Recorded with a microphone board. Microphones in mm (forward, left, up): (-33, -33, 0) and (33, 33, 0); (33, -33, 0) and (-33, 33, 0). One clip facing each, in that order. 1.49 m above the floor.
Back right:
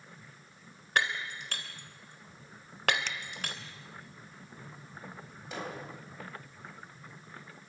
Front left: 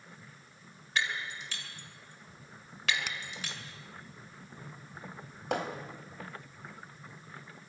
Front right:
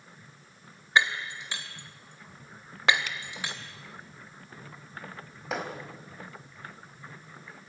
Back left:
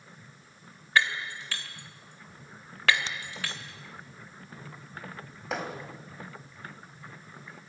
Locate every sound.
1.0 s breaking glass: 115° right, 2.5 m
3.1 s a finger snap: 115° left, 0.7 m
5.5 s hammering: 45° left, 3.5 m